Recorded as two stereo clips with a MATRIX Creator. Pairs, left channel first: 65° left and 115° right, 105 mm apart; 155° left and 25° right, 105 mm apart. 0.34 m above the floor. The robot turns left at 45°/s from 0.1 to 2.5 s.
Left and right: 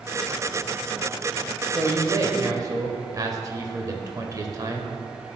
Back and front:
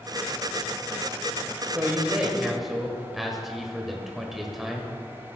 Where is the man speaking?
75° right, 1.1 m; by 4.9 s 110° right, 1.1 m.